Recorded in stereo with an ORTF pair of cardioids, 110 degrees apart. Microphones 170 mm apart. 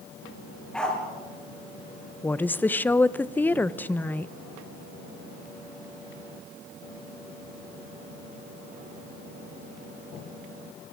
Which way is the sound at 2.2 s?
10° left.